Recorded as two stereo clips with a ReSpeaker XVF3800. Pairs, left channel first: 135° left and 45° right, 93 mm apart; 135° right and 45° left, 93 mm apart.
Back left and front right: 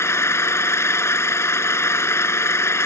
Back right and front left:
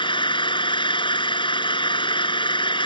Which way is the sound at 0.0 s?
165° right.